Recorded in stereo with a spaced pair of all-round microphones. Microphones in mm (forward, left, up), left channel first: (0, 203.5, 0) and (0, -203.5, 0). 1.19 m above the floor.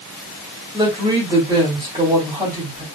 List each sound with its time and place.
0.7 s a woman speaking: 10° right (ahead or behind), 3 m